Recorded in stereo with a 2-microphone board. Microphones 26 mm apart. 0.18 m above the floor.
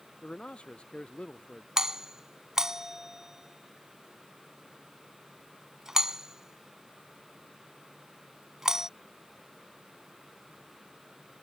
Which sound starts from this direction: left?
A man speaking, at 0.2 s.